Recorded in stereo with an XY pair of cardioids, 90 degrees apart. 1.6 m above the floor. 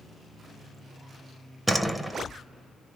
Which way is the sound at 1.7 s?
5° right.